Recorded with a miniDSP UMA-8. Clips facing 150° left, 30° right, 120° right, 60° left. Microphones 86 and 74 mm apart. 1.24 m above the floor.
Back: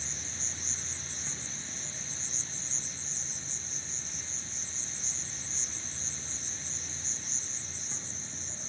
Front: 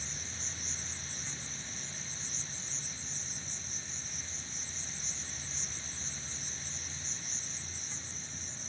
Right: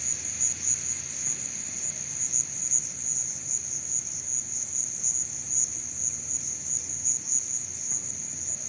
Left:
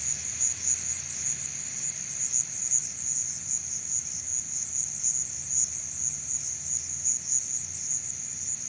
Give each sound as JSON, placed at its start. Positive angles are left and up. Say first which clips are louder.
{"t": 0.0, "sound": "an insect", "louder": "back 1 dB, right 1 dB", "azimuth_deg": -145}